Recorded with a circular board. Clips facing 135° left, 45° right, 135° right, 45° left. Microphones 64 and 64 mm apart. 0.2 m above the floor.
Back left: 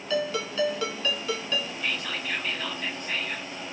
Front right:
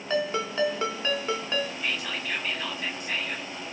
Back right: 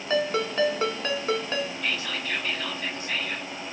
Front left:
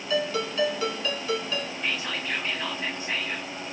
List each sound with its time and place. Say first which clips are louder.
0.1 s a ringtone: front right 1 dB, back right 2 dB; 95° right, 0.9 m
1.8 s whispering: even, even; 30° left, 1.3 m